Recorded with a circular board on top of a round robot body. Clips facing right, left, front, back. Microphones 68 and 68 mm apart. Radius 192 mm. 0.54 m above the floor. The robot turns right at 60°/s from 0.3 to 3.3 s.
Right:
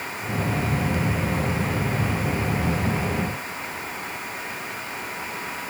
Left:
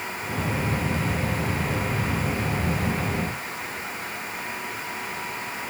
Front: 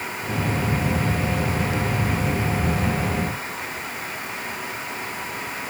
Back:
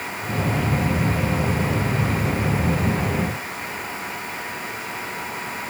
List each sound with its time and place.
Only background noise.